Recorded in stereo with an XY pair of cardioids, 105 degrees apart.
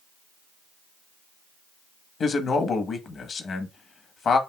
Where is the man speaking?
50° left, 1.1 m.